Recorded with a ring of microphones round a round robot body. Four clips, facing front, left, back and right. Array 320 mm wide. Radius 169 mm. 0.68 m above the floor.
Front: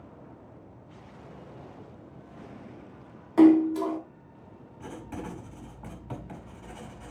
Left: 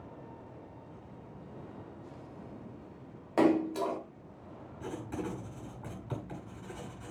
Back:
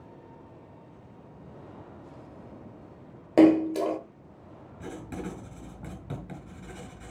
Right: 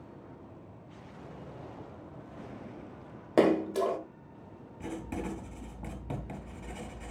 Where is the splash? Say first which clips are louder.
Right 2 dB, front 1 dB; 145° right, 1.5 m.